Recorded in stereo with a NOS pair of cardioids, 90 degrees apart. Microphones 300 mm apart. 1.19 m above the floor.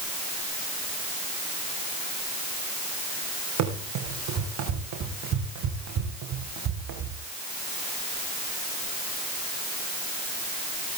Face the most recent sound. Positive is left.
turn(degrees=-65)